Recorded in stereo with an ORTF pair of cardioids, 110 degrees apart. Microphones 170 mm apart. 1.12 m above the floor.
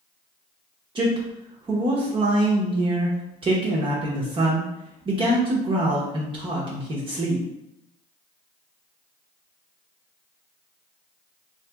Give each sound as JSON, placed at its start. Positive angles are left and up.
{"t": 0.9, "sound": "a man speaking", "azimuth_deg": -30, "distance_m": 0.7}